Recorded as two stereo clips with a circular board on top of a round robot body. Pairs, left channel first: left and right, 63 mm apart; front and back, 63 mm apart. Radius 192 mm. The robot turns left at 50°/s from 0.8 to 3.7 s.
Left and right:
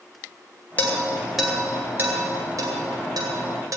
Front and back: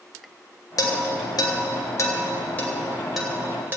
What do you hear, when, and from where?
0.8 s dishes clattering: 25° left, 2.5 m; by 3.8 s 120° right, 2.5 m